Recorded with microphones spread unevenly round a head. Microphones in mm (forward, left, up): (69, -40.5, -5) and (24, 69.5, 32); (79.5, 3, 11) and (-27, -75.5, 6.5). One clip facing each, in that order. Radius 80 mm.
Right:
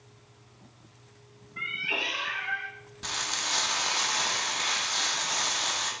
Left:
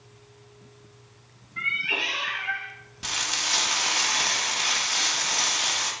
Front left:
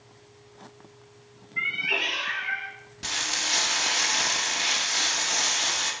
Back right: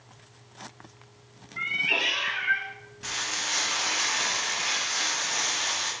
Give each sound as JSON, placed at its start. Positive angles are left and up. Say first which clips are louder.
{"t": 1.6, "sound": "a cat meowing", "louder": "left 2 dB, even", "azimuth_deg": 55, "distance_m": 0.5}
{"t": 3.0, "sound": "frying", "louder": "left 2 dB, front left 2 dB", "azimuth_deg": 65, "distance_m": 0.7}